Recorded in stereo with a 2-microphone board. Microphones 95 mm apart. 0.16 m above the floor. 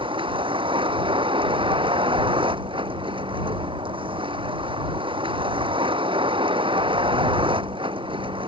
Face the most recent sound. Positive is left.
turn(degrees=-65)  # may be behind; listen again after turning